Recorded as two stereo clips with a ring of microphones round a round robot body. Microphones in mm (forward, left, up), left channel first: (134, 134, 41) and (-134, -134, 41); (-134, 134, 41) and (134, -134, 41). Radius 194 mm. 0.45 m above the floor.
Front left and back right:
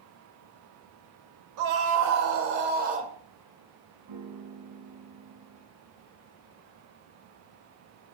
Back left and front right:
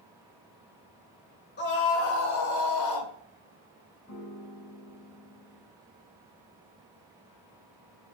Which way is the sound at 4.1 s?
170° right.